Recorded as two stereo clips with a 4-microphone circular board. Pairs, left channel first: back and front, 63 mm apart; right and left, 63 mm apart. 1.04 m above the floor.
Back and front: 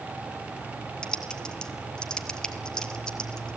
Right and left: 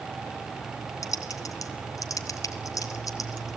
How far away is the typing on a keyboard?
About 1.8 m.